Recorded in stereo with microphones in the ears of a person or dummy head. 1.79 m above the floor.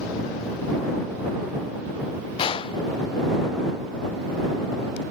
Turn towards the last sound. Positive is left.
turn(degrees=30)  # may be behind; listen again after turning